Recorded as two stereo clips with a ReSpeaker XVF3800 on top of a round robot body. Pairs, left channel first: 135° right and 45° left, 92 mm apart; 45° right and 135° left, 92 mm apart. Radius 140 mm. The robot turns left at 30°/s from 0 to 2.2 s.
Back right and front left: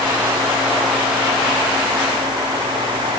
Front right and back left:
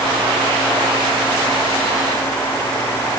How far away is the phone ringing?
I don't hear a phone ringing.